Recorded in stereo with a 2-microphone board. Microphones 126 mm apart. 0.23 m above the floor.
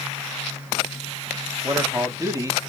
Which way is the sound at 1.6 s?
25° right (ahead or behind).